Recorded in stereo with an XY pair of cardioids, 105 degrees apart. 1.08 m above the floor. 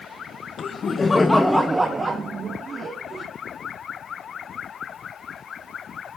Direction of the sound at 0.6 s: 55° left.